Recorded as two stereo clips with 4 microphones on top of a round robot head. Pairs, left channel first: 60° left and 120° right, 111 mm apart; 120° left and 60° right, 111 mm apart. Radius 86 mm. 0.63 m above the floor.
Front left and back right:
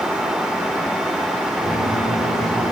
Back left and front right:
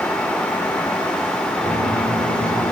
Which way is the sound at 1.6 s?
100° left.